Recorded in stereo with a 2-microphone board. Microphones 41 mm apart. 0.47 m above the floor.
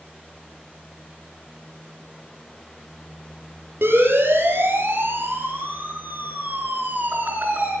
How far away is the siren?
About 8 m.